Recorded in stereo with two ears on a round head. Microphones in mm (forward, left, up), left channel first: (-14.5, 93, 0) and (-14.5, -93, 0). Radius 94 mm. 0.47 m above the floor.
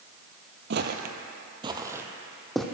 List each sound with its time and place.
0.7 s footsteps: 55° right (ahead or behind), 0.8 m; by 2.6 s centre (ahead or behind), 1.1 m